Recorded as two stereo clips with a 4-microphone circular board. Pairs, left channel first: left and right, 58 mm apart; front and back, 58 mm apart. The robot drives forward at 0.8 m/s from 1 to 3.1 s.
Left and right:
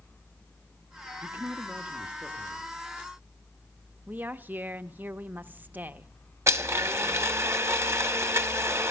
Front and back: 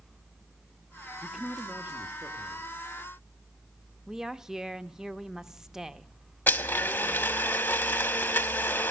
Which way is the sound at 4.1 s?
105° right.